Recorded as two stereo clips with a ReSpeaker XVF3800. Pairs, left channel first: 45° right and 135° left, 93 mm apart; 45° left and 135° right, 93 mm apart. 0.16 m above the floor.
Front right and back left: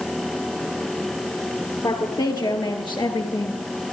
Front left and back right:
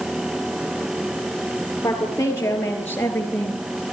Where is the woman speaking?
10° right, 4 m; by 3.6 s 25° right, 3.5 m.